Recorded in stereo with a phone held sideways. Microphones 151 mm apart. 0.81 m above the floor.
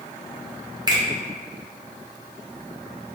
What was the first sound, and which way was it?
A finger snap, 25° right (ahead or behind).